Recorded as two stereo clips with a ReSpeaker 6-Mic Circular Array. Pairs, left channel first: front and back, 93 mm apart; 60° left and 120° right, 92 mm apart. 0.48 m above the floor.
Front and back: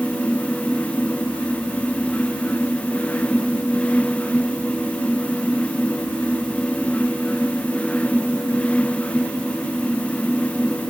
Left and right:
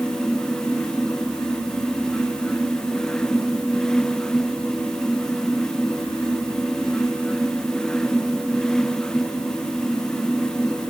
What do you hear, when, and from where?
Only background noise.